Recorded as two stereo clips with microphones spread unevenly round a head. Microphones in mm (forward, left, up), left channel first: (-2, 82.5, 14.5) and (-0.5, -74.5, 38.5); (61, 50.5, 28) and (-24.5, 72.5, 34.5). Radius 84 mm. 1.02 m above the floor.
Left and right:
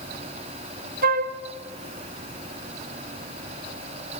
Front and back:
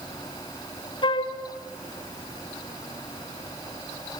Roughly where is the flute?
Ahead right.